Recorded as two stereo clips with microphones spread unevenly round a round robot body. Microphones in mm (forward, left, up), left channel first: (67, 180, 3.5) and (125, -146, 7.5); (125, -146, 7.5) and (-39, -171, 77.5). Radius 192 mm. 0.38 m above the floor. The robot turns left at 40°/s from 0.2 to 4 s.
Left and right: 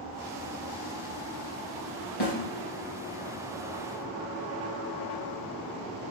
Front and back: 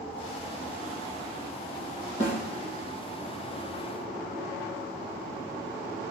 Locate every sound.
2.2 s a snare drum: 130° left, 2.5 m; by 2.4 s 125° left, 2.5 m